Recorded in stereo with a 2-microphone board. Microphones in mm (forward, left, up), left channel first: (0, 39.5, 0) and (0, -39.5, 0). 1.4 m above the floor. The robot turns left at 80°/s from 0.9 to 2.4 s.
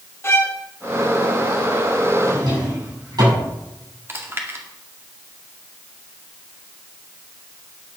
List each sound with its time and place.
0.2 s a violin: 30° left (ahead or behind), 1.1 m
2.2 s a drawer: 45° right (ahead or behind), 7.5 m; by 3.5 s 55° right (ahead or behind), 7.5 m
4.1 s chewing: 30° right (ahead or behind), 2 m